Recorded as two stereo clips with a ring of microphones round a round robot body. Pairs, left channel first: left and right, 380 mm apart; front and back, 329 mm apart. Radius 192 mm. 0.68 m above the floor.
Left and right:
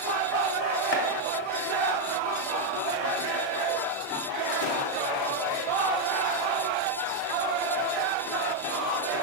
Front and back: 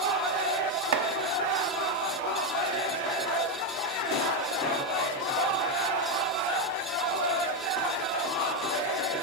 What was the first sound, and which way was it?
Chopping, 150° left.